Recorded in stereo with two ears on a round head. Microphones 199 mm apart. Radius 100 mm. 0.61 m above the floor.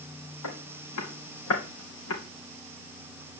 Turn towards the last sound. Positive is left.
turn(degrees=70)  # may be behind; listen again after turning